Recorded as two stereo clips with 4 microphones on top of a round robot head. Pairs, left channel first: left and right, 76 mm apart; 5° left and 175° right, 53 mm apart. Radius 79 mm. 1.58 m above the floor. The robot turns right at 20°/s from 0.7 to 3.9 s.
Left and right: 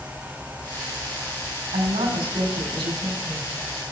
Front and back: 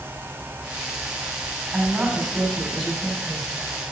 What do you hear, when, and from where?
1.7 s a woman speaking: 110° right, 4.5 m; by 3.5 s 75° right, 4.5 m